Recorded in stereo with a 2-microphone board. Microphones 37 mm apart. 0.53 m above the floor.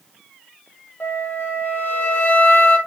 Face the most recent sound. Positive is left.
turn(degrees=65)  # may be behind; listen again after turning